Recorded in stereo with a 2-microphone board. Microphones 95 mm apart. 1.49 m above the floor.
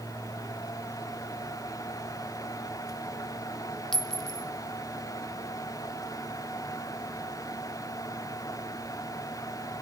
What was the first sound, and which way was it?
A clink, 5° left (ahead or behind).